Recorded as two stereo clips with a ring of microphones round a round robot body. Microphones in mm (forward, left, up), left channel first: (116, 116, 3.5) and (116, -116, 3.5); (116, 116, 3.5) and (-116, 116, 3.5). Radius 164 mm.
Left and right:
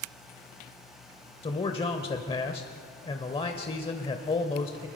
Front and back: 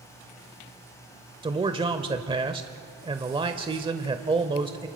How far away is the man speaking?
About 0.9 m.